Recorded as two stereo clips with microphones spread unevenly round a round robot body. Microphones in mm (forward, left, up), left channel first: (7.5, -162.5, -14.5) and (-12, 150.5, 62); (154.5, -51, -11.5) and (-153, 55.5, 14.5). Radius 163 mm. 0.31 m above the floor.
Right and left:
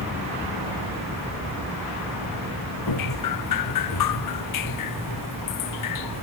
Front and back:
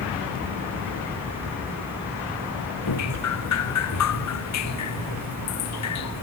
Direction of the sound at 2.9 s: 60° right.